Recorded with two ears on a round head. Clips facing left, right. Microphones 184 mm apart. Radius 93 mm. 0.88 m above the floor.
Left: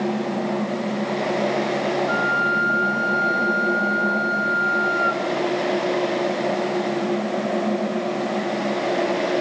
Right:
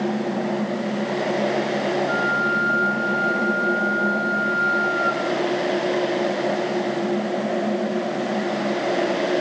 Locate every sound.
2.1 s a flute: 40° left (ahead or behind), 2.5 m